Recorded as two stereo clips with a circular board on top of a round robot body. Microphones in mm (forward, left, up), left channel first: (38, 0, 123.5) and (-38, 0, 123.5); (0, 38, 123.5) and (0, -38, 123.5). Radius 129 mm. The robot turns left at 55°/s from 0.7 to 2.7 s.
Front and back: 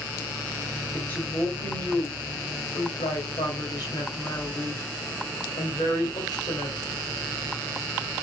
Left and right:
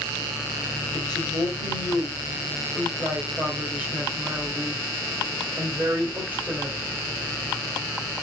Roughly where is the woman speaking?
Left.